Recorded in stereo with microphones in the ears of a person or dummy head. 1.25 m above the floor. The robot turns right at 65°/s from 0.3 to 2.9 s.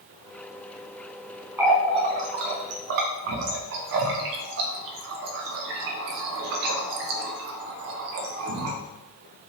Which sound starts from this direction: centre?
A running tap, at 1.6 s.